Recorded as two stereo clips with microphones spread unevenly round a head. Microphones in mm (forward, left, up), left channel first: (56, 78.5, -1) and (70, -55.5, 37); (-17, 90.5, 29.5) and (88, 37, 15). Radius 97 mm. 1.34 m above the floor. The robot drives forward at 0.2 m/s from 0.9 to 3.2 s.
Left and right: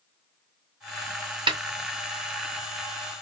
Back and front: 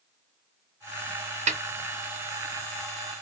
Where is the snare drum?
30° right, 0.7 m.